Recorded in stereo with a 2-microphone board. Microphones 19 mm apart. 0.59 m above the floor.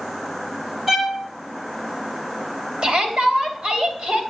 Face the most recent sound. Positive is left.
turn(degrees=-65)  # may be behind; listen again after turning